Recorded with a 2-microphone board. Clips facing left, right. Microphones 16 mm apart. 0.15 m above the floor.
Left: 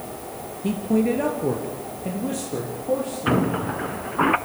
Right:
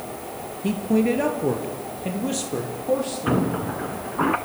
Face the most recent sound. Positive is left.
turn(degrees=45)  # may be behind; listen again after turning